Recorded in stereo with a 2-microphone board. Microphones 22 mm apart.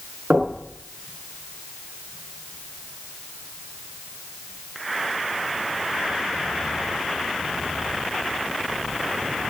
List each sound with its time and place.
0.3 s knocking: 65° right (ahead or behind), 5.5 m